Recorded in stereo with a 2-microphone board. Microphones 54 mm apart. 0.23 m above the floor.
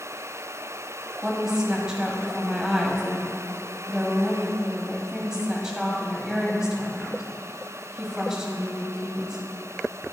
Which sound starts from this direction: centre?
A woman speaking, at 1.2 s.